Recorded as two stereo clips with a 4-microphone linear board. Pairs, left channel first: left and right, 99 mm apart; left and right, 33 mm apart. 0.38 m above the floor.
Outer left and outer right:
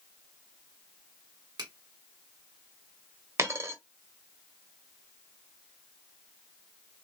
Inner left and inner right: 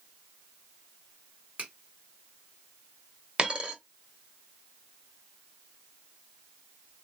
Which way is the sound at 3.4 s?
30° right (ahead or behind).